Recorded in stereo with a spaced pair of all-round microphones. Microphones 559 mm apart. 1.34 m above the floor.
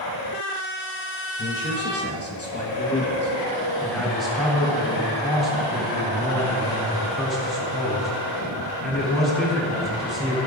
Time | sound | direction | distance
1.4 | a man speaking | 20° left (ahead or behind) | 1.3 m
3.8 | a man speaking | centre (ahead or behind) | 4 m